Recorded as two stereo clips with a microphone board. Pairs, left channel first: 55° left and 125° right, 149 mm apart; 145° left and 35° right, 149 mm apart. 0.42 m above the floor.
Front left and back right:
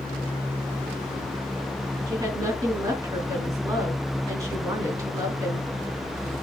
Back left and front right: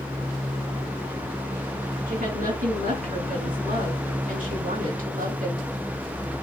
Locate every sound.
2.1 s a woman speaking: 55° right, 3.5 m